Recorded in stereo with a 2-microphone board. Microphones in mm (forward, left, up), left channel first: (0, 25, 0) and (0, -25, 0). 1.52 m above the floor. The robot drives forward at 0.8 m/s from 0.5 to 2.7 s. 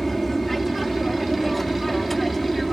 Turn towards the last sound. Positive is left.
turn(degrees=5)  # may be behind; listen again after turning